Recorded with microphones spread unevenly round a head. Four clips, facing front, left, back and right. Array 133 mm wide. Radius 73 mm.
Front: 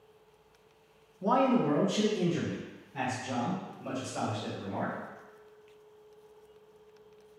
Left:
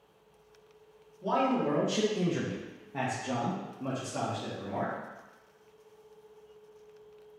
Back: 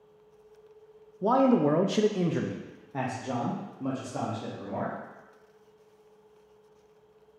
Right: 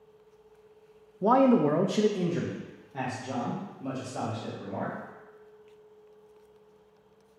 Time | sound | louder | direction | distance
1.2 | a man speaking | right 7 dB, back 4 dB | 110° right | 0.5 m